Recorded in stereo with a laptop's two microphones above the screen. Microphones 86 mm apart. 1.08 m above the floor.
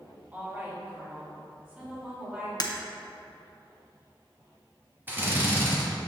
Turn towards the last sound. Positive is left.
turn(degrees=-25)  # may be behind; listen again after turning